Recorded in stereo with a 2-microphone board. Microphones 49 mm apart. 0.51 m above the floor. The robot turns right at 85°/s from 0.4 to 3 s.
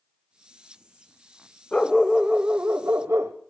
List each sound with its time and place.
1.7 s a dog barking: 155° left, 1.0 m; by 3.3 s 95° right, 1.0 m